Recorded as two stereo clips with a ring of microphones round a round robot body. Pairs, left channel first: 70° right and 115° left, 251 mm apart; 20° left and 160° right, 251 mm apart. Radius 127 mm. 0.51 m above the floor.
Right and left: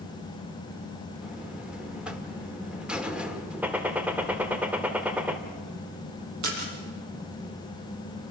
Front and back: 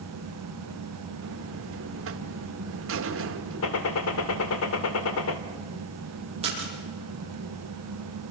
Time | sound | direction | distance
1.2 | a buzzer | 160° right | 1.8 m
3.6 | a gunshot | 30° left | 2.0 m
6.4 | a splash | 135° left | 8.5 m